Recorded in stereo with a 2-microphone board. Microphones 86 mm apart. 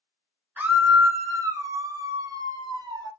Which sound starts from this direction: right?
A scream, at 0.6 s.